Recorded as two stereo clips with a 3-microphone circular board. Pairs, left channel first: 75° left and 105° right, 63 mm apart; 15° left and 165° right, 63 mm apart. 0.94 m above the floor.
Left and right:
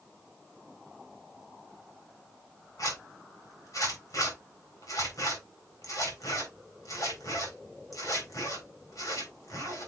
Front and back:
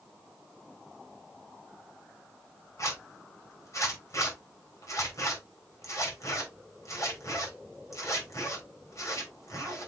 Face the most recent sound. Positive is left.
turn(degrees=50)